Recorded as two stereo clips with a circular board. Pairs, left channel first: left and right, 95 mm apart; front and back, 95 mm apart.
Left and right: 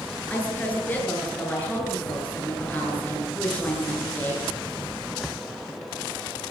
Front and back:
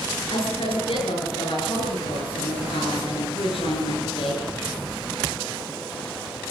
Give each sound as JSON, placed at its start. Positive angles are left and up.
{"t": 0.3, "sound": "a woman speaking", "azimuth_deg": 20, "distance_m": 8.5}